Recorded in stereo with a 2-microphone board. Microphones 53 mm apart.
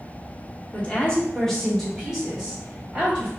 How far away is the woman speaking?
About 1.2 m.